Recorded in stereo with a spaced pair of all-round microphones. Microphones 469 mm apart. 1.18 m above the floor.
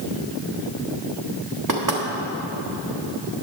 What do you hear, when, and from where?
1.7 s knocking: 40° right (ahead or behind), 1.5 m